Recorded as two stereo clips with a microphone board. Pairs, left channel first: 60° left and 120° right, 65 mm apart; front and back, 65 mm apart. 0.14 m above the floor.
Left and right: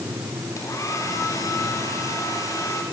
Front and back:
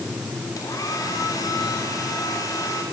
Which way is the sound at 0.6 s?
25° left.